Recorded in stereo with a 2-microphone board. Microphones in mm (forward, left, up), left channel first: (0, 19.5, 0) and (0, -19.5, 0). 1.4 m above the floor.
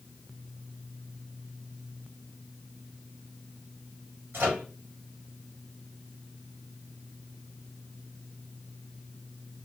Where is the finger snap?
I don't hear a finger snap.